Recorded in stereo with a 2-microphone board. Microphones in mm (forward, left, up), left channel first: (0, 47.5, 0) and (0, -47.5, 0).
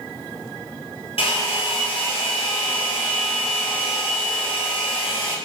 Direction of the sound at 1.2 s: 85° left.